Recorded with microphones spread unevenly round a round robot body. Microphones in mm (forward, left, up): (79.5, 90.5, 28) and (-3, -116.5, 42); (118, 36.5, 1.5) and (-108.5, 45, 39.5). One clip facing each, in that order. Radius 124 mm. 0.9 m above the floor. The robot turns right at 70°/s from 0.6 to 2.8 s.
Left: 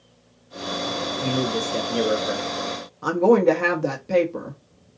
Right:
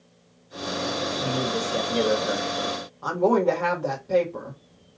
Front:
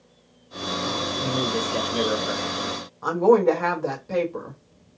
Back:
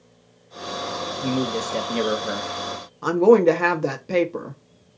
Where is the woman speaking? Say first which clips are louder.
Left 5 dB, back 3 dB; 130° left, 1.1 m.